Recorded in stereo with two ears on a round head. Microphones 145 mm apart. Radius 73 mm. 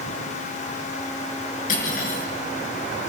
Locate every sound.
1.7 s cutlery clinking: 55° left (ahead or behind), 6.5 m